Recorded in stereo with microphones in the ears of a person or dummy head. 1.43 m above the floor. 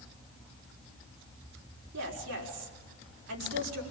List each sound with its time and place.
1.9 s a woman speaking: 80° right, 5 m